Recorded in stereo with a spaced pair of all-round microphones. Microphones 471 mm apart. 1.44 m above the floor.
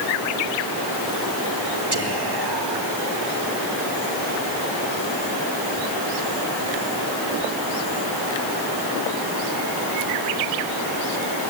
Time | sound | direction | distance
1.9 | whispering | 55° right (ahead or behind) | 2.0 m